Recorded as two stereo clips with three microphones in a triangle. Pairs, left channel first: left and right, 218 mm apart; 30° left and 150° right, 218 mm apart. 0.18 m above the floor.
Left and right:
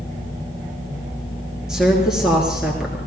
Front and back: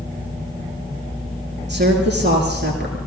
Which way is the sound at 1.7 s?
175° right.